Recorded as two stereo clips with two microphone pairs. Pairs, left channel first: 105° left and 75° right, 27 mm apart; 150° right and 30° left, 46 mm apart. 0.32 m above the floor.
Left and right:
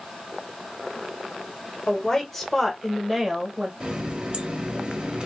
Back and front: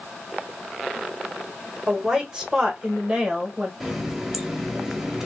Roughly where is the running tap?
Ahead right.